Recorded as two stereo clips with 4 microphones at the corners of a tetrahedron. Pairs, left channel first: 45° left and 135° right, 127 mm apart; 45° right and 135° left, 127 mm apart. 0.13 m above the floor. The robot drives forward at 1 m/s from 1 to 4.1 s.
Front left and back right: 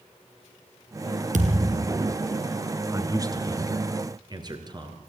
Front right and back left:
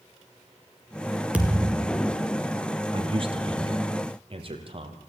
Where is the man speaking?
165° left, 2 m; by 5.0 s 170° left, 3 m.